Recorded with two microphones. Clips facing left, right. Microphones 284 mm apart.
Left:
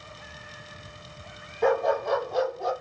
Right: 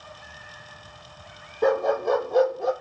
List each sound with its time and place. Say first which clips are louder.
1.6 s a dog barking: right 2 dB; 50° right (ahead or behind), 0.8 m; by 2.7 s 70° right (ahead or behind), 1.0 m